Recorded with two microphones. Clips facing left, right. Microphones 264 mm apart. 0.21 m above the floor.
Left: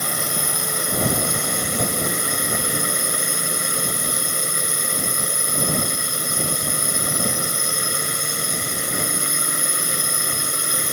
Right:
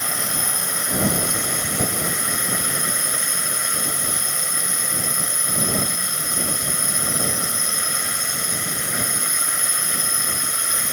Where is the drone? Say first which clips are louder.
Left 2 dB; 45° left (ahead or behind).